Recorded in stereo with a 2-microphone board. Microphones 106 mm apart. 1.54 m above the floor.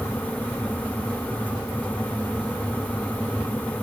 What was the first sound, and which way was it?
Only background noise.